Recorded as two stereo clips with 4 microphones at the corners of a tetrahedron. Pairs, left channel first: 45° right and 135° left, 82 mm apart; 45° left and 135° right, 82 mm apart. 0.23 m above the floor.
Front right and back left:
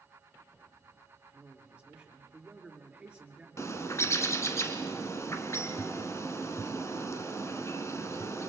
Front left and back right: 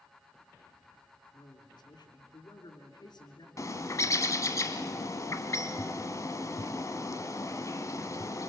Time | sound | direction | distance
1.3 | a man speaking | 60° left | 2.5 m
3.6 | a bird | 5° left | 1.2 m